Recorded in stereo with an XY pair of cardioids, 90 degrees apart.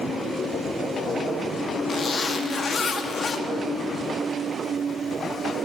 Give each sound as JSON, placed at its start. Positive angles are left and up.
{"t": 1.9, "sound": "a zipper", "azimuth_deg": 50, "distance_m": 1.2}